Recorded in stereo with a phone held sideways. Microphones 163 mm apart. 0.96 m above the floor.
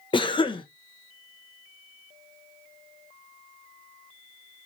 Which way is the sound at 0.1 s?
30° left (ahead or behind).